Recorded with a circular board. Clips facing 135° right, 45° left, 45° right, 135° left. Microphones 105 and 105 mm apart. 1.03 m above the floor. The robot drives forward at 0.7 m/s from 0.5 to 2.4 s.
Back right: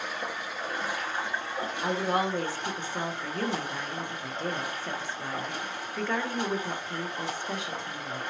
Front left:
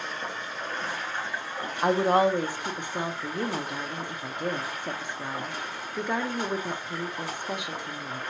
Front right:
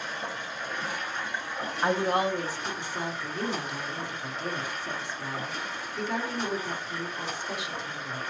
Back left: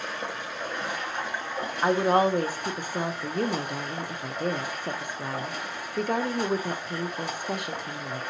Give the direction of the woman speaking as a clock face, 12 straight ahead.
10 o'clock.